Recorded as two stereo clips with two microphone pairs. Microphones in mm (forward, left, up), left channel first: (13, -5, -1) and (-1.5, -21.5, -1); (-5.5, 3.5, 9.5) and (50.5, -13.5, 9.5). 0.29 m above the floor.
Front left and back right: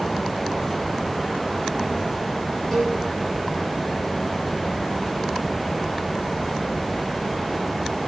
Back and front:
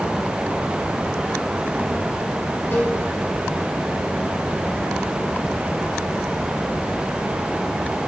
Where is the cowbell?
115° left, 4.5 m.